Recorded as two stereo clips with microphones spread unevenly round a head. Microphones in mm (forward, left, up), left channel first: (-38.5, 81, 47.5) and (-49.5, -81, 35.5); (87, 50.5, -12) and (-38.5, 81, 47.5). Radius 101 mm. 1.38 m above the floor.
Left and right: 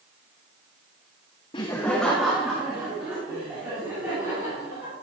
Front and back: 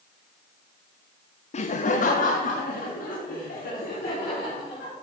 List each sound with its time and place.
1.5 s laughter: 20° left, 0.8 m; by 4.9 s 15° right, 6 m